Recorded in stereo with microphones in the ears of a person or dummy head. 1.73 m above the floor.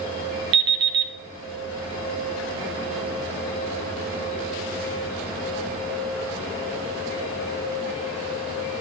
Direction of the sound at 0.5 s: 25° right (ahead or behind).